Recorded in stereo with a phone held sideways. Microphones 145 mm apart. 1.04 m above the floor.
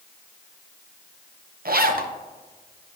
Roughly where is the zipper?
Right.